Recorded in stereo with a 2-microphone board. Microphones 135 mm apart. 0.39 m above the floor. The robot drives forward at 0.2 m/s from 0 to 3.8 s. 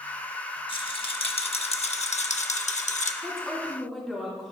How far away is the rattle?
About 0.7 m.